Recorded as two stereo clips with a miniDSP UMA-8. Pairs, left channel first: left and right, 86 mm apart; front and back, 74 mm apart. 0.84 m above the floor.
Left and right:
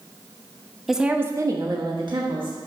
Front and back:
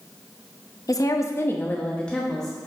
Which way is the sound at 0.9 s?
Straight ahead.